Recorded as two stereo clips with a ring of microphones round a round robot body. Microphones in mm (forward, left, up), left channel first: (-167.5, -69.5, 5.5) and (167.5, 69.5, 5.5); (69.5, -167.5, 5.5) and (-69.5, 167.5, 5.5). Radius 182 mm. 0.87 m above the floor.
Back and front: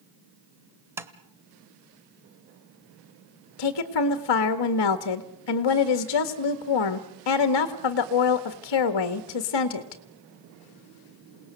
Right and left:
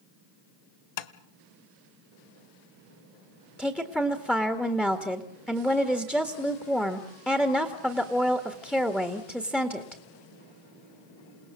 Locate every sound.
1.0 s tapping: 60° right, 1.2 m
3.6 s a woman speaking: 155° right, 1.7 m